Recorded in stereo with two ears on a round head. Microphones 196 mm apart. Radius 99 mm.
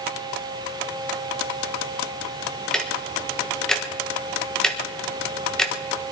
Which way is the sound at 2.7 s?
5° left (ahead or behind).